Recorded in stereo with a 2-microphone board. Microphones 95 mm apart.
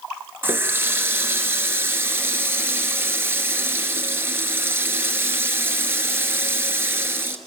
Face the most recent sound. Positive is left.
turn(degrees=-25)  # may be behind; listen again after turning